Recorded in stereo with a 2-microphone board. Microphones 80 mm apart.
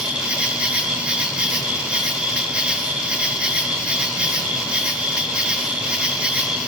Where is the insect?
15° right (ahead or behind), 1.6 m.